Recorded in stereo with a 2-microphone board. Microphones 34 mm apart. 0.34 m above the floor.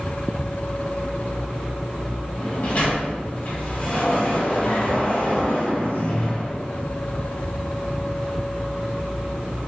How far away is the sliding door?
About 1.7 m.